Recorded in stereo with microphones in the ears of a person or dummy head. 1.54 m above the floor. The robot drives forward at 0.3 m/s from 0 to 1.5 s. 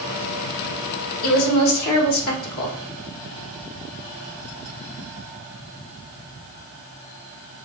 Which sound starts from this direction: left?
A woman speaking, at 1.2 s.